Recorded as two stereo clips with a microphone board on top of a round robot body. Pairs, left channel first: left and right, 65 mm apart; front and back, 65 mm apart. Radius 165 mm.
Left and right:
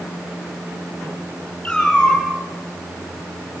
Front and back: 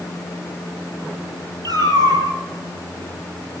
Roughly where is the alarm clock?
I don't hear an alarm clock.